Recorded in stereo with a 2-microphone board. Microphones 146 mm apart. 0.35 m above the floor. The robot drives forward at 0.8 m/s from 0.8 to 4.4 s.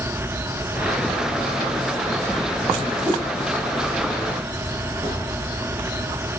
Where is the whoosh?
25° right (ahead or behind), 7 m.